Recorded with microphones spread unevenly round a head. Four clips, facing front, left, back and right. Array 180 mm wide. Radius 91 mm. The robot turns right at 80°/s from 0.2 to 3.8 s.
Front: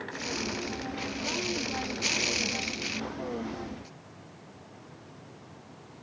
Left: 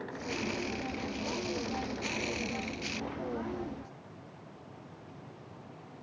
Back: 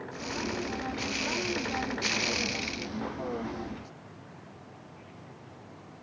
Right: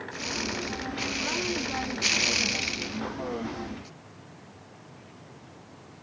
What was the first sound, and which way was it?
Only background noise.